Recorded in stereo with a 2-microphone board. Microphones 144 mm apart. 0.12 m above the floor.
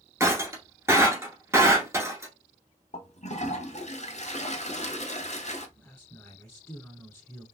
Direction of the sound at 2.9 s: 50° left (ahead or behind).